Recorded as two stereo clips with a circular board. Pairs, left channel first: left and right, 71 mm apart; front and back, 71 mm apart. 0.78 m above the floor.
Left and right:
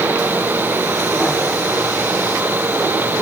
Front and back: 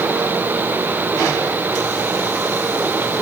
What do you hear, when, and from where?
Only background noise.